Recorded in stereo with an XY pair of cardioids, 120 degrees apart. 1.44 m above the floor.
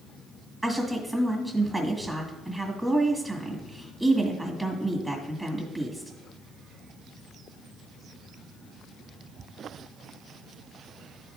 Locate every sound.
0.6 s a woman speaking: 10° right, 2.5 m